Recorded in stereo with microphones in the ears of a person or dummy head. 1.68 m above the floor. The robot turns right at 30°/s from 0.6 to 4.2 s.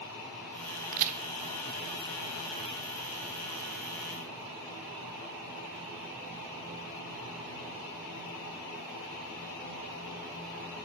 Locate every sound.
0.9 s a crack: 45° right (ahead or behind), 0.5 m; by 1.2 s 35° right (ahead or behind), 0.5 m